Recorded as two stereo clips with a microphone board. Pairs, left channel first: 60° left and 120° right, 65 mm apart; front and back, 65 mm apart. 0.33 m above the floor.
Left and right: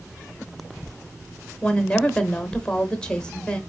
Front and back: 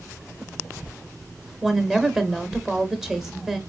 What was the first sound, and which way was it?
A woman speaking, 110° left.